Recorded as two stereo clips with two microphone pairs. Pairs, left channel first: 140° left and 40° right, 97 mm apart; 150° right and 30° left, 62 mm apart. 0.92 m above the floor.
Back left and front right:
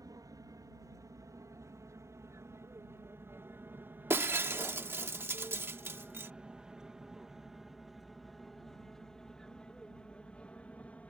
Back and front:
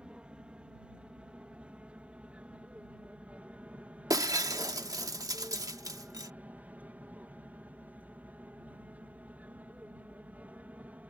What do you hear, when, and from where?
0.0 s an aircraft: 35° right; by 11.1 s 75° left
4.1 s breaking glass: 25° left